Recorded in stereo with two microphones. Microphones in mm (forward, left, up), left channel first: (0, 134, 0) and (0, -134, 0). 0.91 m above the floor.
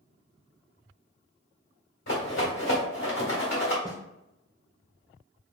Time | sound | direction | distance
2.1 | a rattle | 80° left | 1.7 m
3.9 | a snare drum | 15° left (ahead or behind) | 0.8 m